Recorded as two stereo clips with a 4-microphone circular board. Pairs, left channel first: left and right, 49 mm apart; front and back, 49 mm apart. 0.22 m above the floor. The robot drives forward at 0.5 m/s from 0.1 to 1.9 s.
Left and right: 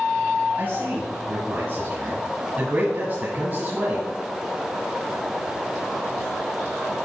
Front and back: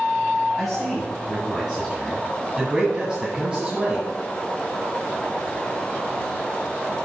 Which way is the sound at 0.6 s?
80° right.